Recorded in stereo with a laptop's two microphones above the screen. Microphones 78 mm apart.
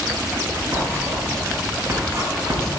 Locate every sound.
0.7 s writing: 35° right (ahead or behind), 3.5 m